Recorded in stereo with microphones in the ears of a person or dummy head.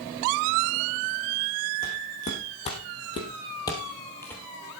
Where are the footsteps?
40° left (ahead or behind), 3.5 m; by 4.4 s centre (ahead or behind), 1.9 m.